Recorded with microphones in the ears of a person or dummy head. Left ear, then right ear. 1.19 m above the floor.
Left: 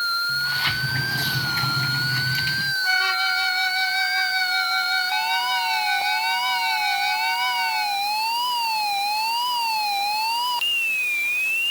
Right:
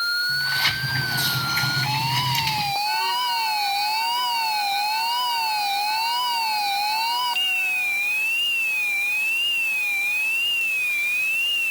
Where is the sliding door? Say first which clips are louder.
Right 1 dB; 20° right (ahead or behind).